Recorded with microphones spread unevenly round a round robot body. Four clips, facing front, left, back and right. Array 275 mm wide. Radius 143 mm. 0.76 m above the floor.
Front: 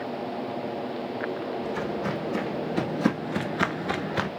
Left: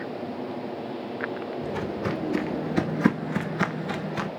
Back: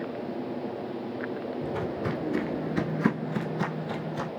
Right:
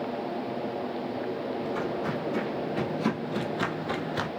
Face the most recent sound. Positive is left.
turn(degrees=-5)